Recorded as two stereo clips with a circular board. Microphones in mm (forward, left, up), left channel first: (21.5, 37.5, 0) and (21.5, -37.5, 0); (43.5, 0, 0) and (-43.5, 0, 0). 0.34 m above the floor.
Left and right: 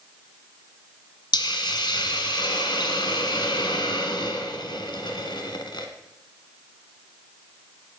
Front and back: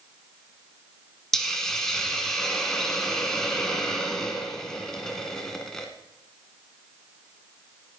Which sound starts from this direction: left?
A hiss, at 1.3 s.